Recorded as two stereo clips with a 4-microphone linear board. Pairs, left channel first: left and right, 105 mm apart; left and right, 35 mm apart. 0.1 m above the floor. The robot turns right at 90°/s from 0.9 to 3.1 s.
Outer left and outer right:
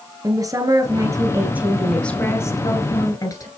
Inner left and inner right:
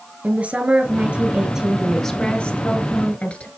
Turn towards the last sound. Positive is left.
turn(degrees=110)